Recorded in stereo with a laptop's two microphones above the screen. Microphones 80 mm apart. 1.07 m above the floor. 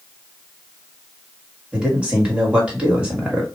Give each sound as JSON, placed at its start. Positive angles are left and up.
{"t": 1.7, "sound": "a man speaking", "side_deg": -15, "distance_m": 1.8}